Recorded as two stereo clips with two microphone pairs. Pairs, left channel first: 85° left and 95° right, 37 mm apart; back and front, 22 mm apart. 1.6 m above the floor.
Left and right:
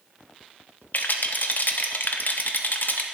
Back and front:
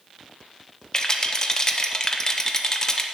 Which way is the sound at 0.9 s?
120° left.